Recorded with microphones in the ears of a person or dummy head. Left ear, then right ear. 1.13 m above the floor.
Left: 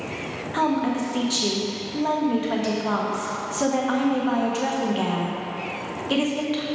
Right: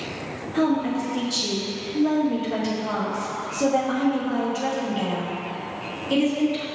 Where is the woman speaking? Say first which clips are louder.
Even; 50° left (ahead or behind), 1.4 m.